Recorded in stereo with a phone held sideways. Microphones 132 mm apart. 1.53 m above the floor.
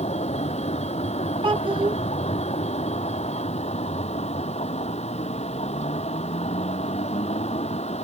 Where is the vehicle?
55° left (ahead or behind).